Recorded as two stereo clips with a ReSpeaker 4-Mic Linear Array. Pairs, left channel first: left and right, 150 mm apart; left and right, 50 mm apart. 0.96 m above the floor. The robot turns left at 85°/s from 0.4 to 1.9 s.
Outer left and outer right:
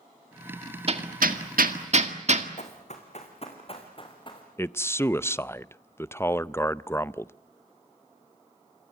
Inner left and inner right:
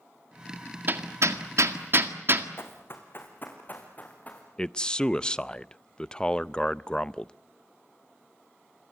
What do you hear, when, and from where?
0.9 s hammering: 40° right (ahead or behind), 1.8 m; by 2.5 s 50° right (ahead or behind), 1.8 m
2.6 s running footsteps: 50° left (ahead or behind), 4 m; by 4.5 s 30° left (ahead or behind), 5 m
4.6 s a man speaking: 20° left (ahead or behind), 0.5 m